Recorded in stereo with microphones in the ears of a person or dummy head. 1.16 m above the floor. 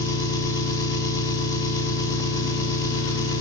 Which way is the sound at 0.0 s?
15° left (ahead or behind).